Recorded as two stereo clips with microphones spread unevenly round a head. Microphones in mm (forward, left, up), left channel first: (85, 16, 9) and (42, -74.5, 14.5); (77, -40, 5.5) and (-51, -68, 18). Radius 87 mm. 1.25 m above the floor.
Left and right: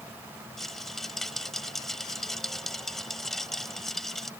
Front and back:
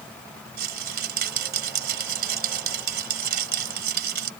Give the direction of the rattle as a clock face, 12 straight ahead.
7 o'clock.